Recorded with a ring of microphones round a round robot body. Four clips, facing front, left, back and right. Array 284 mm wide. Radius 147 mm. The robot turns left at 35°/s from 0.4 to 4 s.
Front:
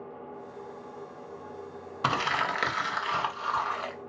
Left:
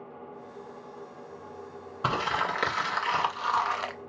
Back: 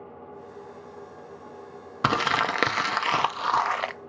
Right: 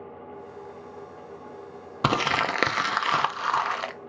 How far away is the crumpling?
About 0.5 m.